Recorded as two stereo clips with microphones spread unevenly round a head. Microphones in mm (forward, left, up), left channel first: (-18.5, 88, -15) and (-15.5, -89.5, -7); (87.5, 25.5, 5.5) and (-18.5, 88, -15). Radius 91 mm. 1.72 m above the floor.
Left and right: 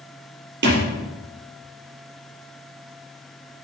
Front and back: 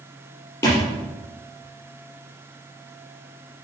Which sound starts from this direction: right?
A thud, at 0.6 s.